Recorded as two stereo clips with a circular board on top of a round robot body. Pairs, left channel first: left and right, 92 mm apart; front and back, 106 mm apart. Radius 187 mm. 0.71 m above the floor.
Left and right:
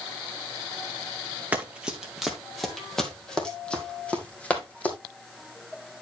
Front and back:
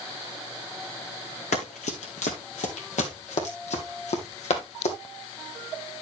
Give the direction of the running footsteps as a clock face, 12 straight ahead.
12 o'clock.